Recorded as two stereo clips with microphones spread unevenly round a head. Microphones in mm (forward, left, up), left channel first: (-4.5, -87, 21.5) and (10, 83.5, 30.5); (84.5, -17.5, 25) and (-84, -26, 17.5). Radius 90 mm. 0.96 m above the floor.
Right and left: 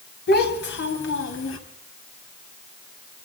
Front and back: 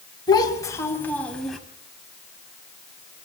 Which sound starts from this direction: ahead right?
A child speaking, at 0.3 s.